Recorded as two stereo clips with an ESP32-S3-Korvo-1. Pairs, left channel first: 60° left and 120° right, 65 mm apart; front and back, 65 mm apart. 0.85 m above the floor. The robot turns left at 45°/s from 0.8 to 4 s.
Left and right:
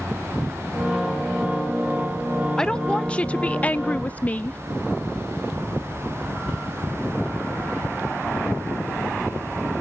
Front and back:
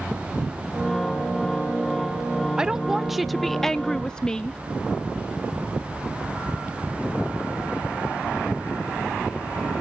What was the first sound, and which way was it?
A woman speaking, 125° left.